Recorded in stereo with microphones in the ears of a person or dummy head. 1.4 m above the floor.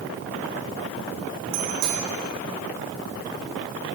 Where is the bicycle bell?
80° right, 6 m.